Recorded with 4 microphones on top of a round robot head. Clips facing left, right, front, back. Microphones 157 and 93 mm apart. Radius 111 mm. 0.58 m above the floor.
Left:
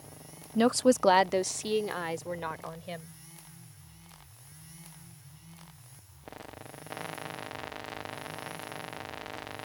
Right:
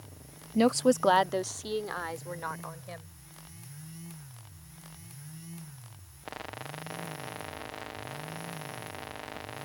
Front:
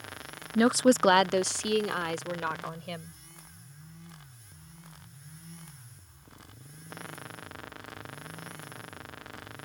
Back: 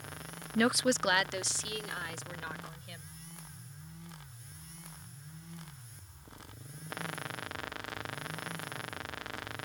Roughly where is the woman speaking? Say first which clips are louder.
Even, front 7 dB; ahead right.